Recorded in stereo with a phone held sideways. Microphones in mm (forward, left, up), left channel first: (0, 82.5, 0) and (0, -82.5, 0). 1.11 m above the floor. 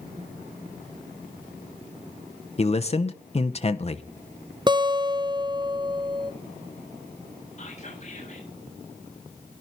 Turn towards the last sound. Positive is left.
turn(degrees=45)  # may be behind; listen again after turning